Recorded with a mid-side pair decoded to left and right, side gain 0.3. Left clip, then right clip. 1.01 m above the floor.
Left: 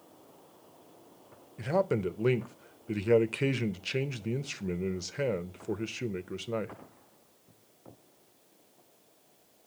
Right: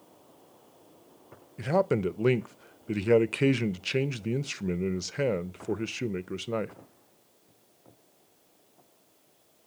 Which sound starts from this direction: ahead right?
A man speaking, at 1.6 s.